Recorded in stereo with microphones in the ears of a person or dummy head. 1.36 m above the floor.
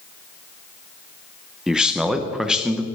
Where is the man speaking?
5° right (ahead or behind), 0.8 m.